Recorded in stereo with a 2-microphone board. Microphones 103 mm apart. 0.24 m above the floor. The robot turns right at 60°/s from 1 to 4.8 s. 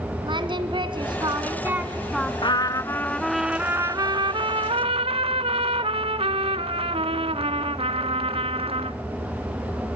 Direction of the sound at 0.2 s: 65° right.